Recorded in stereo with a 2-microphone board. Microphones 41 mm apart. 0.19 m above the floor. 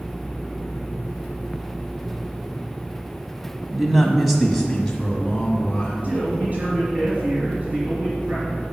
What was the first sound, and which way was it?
A man speaking, 10° right (ahead or behind).